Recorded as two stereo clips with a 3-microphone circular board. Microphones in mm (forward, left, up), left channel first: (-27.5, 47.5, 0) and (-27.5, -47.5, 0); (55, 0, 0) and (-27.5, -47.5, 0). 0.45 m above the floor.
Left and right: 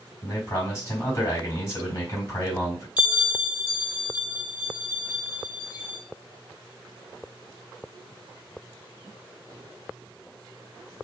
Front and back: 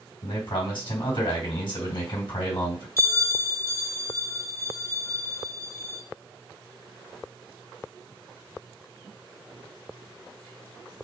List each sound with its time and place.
0.2 s a man speaking: 35° left, 2.5 m
3.0 s a bell: 15° right, 1.3 m